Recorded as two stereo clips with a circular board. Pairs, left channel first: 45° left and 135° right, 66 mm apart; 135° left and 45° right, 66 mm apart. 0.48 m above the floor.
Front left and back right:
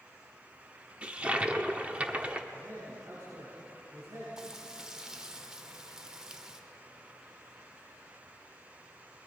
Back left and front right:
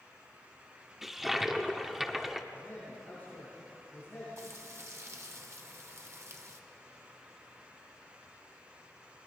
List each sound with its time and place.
1.0 s a toilet flushing: 120° right, 1.0 m
2.5 s a man speaking: 165° right, 7.5 m
4.4 s frying: 60° right, 1.3 m